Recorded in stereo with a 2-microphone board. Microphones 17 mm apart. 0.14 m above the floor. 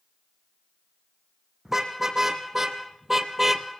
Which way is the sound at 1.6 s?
20° right (ahead or behind).